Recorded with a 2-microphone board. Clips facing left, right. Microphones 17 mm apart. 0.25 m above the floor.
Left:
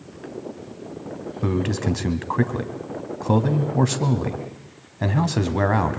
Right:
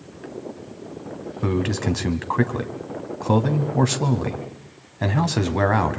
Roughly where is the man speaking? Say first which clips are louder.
Right 1 dB; centre.